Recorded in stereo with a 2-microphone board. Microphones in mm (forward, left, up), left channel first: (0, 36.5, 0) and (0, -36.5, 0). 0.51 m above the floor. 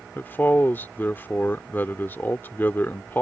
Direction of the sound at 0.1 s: 25° left (ahead or behind).